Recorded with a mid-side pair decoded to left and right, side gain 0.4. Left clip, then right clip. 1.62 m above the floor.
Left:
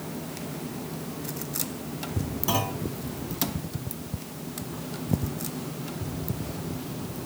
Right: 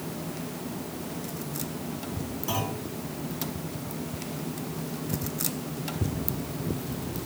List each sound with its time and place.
2.5 s a clunk: 50° left, 2.5 m